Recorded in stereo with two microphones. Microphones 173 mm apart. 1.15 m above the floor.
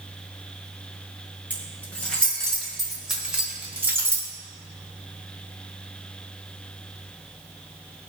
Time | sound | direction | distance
1.5 | keys jangling | 10° left (ahead or behind) | 5 m